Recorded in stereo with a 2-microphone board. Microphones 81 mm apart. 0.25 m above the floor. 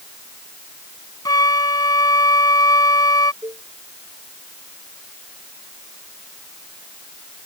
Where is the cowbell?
50° right (ahead or behind).